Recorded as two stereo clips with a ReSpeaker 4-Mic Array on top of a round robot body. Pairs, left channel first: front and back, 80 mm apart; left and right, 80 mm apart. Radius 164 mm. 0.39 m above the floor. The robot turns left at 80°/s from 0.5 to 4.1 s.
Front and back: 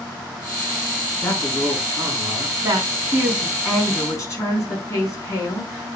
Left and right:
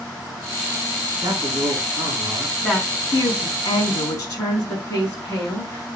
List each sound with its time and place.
1.2 s a man speaking: 50° right, 5.5 m; by 2.5 s 155° right, 5.5 m
2.6 s a woman speaking: 170° left, 5 m; by 6.0 s 55° left, 5 m